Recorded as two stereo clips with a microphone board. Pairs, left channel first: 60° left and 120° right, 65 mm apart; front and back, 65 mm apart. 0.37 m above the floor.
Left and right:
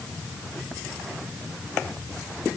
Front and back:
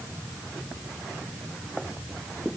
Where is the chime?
No chime in this recording.